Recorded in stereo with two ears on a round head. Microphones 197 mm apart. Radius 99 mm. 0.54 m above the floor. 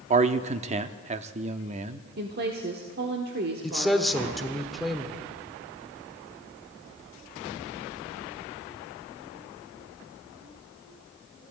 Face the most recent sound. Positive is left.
turn(degrees=0)  # may be behind; listen again after turning